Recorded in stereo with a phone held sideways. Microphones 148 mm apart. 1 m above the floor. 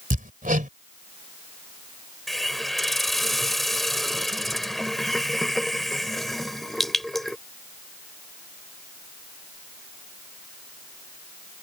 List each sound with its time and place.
0.1 s hammering: 65° right (ahead or behind)
2.3 s a hiss: centre (ahead or behind)